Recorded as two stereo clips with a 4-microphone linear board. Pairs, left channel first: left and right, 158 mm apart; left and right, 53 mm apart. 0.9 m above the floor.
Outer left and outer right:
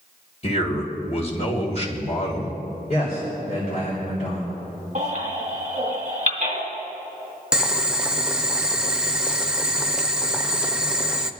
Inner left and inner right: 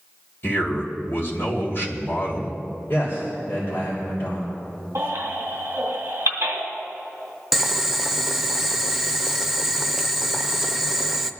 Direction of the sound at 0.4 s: 45° left (ahead or behind).